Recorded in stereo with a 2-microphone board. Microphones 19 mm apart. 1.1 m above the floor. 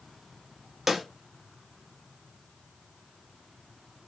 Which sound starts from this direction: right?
A snare drum, at 0.9 s.